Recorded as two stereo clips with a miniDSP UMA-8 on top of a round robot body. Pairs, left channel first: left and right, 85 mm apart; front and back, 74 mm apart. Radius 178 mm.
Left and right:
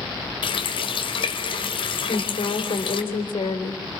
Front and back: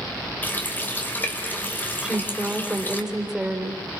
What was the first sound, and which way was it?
A running tap, 65° left.